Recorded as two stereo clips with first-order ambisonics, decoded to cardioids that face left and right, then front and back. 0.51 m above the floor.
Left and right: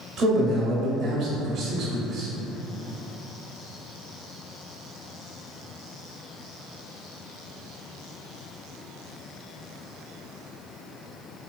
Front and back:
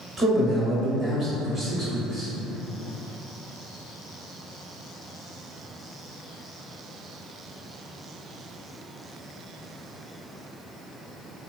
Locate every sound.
0.2 s a man speaking: 125° right, 0.7 m